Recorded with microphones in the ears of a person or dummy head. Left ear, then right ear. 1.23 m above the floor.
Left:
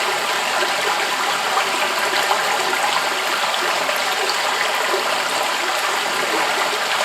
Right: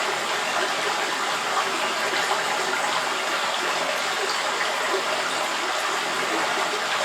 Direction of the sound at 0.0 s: 25° left (ahead or behind).